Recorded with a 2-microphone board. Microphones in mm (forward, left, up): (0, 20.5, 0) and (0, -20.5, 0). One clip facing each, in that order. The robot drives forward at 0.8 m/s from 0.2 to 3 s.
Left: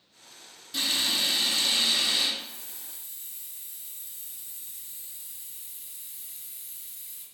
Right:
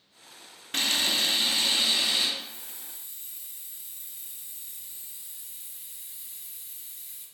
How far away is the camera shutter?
About 0.5 m.